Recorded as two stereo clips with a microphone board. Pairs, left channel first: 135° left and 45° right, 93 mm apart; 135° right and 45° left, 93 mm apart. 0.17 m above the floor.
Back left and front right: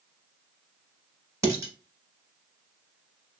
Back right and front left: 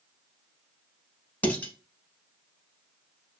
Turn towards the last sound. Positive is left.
turn(degrees=-75)